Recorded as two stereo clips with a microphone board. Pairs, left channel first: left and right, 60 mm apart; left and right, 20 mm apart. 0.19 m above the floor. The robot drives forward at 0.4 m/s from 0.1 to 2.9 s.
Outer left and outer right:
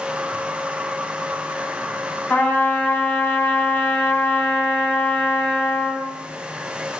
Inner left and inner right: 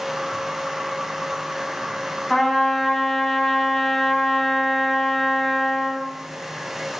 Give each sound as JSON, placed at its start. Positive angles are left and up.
{"t": 2.3, "sound": "a trumpet", "side_deg": 30, "distance_m": 0.7}